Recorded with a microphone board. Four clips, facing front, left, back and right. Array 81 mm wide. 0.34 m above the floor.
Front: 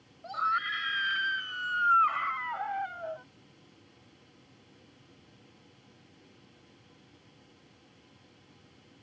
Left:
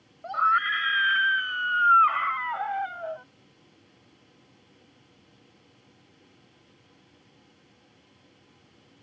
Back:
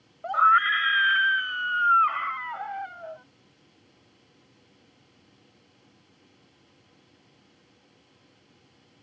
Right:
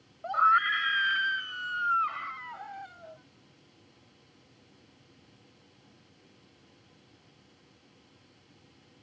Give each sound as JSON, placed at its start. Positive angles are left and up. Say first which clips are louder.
{"t": 0.2, "sound": "a scream", "louder": "even, back 11 dB", "azimuth_deg": -175}